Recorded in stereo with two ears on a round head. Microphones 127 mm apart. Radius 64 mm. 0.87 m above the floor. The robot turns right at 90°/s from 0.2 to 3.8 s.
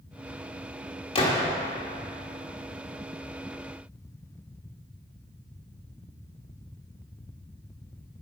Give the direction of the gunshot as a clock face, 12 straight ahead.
7 o'clock.